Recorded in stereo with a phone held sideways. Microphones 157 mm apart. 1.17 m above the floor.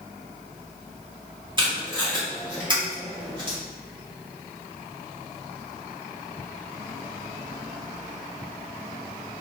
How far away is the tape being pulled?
About 1.7 m.